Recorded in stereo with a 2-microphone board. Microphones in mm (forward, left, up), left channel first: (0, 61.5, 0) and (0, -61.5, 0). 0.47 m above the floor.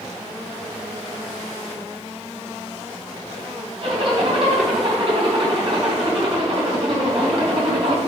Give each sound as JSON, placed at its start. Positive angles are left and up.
{"t": 3.8, "sound": "a zipper", "side_deg": -50, "distance_m": 3.0}